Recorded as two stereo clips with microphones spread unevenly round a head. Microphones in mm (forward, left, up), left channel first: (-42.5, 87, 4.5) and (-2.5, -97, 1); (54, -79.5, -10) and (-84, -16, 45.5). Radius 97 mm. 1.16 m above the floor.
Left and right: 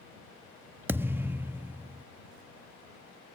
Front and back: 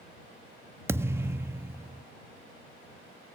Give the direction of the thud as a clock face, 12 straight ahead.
5 o'clock.